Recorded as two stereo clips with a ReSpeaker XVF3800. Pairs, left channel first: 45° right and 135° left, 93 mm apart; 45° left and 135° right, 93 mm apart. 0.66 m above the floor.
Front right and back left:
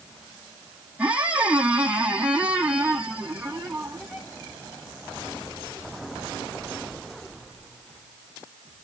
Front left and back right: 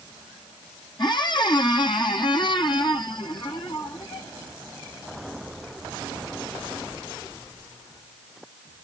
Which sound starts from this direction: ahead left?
A squeak, at 1.0 s.